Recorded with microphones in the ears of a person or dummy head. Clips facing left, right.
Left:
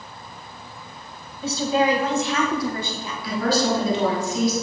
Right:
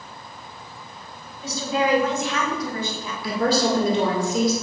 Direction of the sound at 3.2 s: 45° right (ahead or behind).